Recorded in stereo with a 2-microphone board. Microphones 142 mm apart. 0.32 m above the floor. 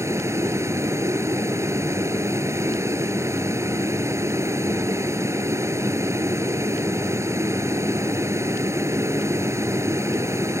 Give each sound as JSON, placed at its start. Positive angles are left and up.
{"t": 0.0, "sound": "a vehicle", "side_deg": -20}